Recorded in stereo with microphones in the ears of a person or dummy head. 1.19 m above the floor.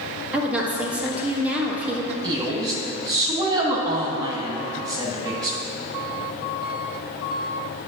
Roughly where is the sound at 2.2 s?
Centre.